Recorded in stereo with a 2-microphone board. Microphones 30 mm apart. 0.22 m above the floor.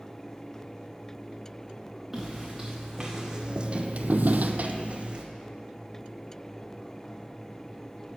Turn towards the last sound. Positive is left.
turn(degrees=-35)  # may be behind; listen again after turning